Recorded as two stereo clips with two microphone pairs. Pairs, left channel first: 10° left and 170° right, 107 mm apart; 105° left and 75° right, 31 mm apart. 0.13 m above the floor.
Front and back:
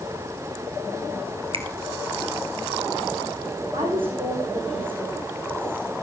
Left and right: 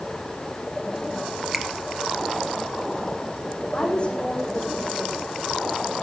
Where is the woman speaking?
155° left, 6.5 m.